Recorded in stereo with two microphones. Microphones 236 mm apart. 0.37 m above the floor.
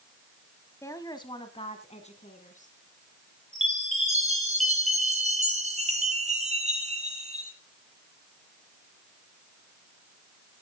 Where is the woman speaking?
10° left (ahead or behind), 1.9 m; by 2.8 s 35° left (ahead or behind), 3.5 m.